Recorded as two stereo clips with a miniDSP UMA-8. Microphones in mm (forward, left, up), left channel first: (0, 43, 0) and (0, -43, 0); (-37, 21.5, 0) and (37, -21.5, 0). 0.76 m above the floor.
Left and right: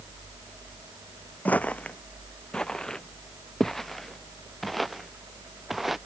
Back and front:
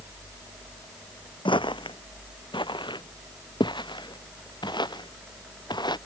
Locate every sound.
1.4 s footsteps: 160° left; by 6.0 s 175° right